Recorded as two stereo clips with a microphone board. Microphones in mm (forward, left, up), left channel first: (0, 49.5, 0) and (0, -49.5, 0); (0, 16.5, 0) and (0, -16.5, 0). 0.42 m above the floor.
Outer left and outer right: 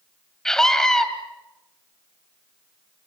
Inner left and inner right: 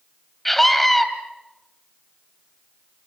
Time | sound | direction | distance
0.5 | a scream | 5° left (ahead or behind) | 2.5 m